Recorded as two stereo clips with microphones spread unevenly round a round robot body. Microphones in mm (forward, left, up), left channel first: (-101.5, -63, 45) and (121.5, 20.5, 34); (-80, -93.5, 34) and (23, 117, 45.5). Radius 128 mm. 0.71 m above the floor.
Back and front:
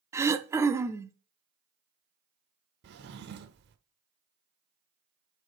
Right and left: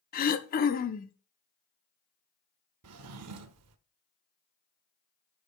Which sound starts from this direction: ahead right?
Throat clearing, at 0.1 s.